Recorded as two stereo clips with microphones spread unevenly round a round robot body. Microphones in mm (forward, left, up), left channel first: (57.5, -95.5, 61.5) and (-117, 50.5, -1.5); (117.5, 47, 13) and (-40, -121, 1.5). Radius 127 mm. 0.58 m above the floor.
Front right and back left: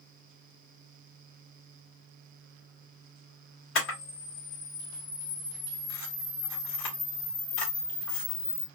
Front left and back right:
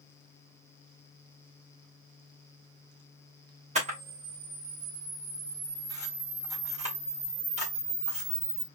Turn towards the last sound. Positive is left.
turn(degrees=-75)